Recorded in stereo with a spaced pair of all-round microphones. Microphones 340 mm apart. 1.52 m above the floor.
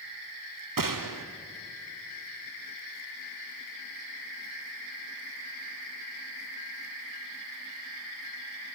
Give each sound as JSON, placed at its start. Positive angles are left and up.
{"t": 0.8, "sound": "a gunshot", "side_deg": -70, "distance_m": 0.8}